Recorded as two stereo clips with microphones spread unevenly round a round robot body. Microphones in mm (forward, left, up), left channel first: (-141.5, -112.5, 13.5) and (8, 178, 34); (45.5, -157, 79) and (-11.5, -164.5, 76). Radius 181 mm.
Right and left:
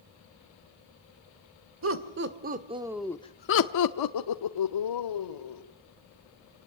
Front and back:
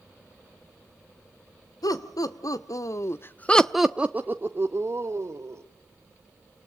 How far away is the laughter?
About 2 m.